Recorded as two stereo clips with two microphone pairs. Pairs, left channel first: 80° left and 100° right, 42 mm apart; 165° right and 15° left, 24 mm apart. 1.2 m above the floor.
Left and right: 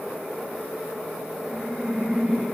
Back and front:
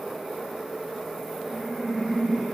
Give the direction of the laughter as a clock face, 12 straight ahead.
11 o'clock.